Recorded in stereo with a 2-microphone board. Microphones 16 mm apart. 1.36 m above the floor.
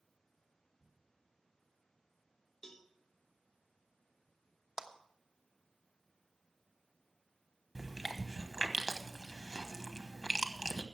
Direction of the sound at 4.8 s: 40° right (ahead or behind).